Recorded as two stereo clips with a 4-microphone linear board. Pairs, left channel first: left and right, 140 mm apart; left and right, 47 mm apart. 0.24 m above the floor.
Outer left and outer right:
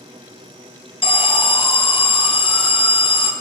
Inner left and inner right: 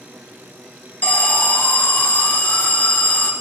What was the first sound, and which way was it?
An alarm, 40° left (ahead or behind).